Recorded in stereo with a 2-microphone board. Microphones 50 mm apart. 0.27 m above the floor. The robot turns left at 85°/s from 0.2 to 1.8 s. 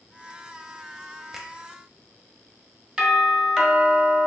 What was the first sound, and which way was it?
A finger snap, 10° right (ahead or behind).